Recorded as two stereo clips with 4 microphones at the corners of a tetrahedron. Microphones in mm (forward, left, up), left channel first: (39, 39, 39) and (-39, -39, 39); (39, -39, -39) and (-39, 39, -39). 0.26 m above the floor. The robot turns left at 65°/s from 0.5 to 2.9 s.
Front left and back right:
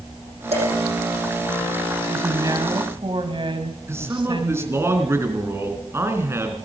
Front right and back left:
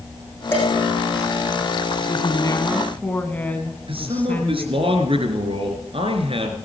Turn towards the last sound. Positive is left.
turn(degrees=160)